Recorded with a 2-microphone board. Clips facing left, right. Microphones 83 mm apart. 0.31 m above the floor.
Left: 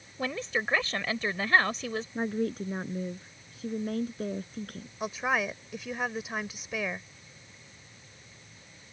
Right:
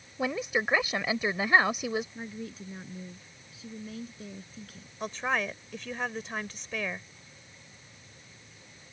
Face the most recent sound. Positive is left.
turn(degrees=5)  # may be behind; listen again after turning